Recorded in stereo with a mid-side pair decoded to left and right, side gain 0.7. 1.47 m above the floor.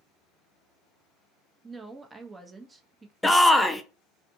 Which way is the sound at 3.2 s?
Straight ahead.